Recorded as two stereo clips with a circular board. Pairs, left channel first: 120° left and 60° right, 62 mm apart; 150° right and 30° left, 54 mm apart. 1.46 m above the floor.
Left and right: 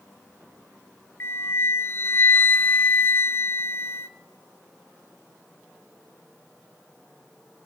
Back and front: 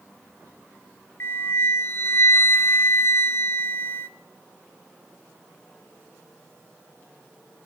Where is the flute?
175° left, 0.6 m.